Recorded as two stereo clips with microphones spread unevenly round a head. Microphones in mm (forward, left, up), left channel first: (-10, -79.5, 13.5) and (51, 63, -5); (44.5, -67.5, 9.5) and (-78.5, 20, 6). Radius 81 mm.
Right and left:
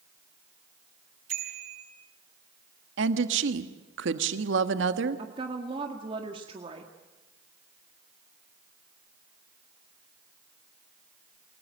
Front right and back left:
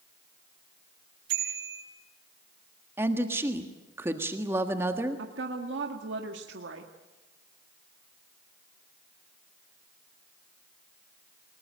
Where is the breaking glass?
I don't hear breaking glass.